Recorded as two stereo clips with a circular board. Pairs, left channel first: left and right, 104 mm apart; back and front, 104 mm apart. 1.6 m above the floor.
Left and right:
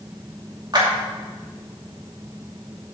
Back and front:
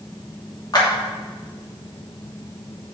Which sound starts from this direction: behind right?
A clap, at 0.7 s.